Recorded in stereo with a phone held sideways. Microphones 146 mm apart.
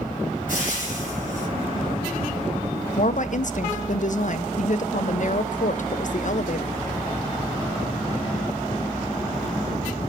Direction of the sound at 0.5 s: 65° right (ahead or behind).